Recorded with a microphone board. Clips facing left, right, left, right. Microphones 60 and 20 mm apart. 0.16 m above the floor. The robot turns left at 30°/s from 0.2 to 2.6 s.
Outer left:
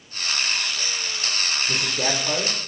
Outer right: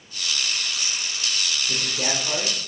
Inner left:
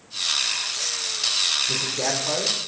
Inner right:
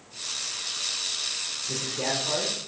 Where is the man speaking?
20° left (ahead or behind), 5.5 m; by 2.5 s 45° left (ahead or behind), 5.5 m.